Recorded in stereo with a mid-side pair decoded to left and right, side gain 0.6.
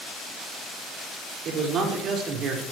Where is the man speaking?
55° right, 5 m.